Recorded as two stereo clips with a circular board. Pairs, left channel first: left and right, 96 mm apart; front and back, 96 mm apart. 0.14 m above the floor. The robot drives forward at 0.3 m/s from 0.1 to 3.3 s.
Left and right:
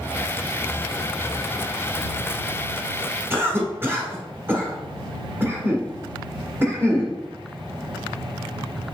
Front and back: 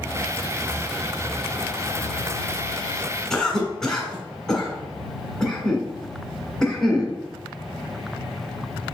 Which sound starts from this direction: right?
A cough, at 3.3 s.